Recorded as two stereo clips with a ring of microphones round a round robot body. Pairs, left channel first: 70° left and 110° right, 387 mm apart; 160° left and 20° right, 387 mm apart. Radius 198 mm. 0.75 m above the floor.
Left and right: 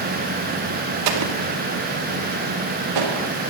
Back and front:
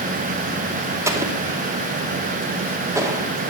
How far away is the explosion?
About 2 m.